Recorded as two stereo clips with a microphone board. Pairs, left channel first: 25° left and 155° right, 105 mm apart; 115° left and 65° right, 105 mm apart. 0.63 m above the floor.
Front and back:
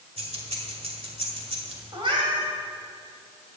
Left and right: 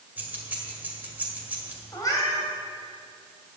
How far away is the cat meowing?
About 1.8 m.